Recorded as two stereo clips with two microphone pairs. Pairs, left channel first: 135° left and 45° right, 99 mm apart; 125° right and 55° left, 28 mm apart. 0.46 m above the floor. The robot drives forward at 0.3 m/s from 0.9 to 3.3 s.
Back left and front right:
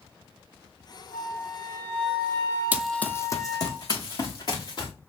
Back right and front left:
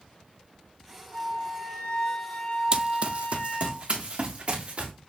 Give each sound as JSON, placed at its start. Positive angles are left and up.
{"t": 1.1, "sound": "a flute", "azimuth_deg": -145, "distance_m": 1.6}
{"t": 2.7, "sound": "running footsteps", "azimuth_deg": 15, "distance_m": 0.5}